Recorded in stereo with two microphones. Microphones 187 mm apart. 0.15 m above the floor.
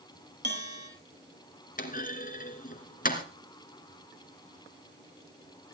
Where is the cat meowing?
I don't hear a cat meowing.